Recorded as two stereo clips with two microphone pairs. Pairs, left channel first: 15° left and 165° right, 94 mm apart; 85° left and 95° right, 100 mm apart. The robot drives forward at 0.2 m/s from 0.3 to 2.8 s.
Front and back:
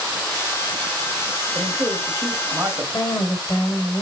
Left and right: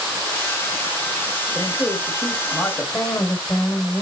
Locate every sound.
1.6 s a man speaking: 135° left, 2 m; by 2.8 s 140° left, 2.5 m
2.9 s a woman speaking: 60° left, 2 m